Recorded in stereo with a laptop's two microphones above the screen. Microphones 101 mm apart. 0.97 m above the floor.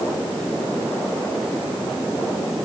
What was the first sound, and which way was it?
Only background noise.